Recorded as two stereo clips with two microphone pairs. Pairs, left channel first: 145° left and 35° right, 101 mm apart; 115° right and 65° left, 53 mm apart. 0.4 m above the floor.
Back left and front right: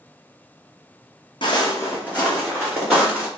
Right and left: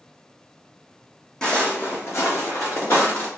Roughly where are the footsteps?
Behind.